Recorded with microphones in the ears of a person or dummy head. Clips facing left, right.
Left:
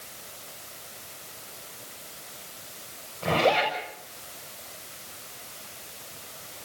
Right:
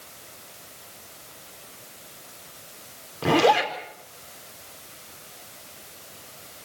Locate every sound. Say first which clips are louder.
3.2 s a zipper: right 4 dB; 80° right, 4.5 m